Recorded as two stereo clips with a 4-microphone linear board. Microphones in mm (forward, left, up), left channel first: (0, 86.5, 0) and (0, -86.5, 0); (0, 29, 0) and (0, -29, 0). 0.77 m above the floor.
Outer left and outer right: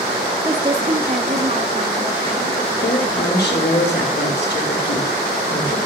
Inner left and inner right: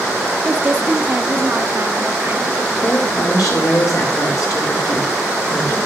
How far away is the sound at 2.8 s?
About 3 m.